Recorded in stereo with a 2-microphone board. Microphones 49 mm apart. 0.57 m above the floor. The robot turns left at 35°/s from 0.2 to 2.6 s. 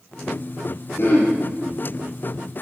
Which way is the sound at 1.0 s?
50° left (ahead or behind).